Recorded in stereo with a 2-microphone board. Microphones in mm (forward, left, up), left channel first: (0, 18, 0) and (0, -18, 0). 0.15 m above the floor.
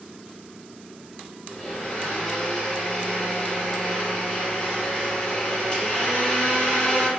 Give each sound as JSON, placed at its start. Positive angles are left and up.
{"t": 1.5, "sound": "a blender", "side_deg": 30, "distance_m": 1.7}